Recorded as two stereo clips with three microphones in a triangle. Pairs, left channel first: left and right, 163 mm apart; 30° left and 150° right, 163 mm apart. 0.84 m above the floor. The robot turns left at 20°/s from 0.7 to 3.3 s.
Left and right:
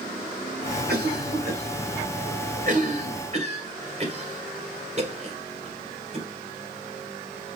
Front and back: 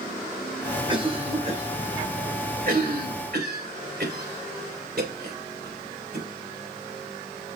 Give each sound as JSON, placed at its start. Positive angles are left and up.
{"t": 0.9, "sound": "a cough", "azimuth_deg": -90, "distance_m": 2.5}